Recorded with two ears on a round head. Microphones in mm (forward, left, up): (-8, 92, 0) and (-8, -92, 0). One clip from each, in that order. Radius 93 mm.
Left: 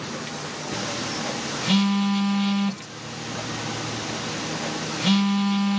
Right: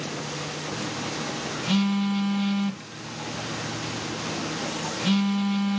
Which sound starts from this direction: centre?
A phone buzzing, at 0.7 s.